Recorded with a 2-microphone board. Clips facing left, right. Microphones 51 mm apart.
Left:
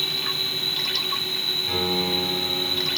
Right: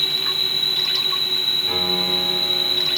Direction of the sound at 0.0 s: 30° left (ahead or behind).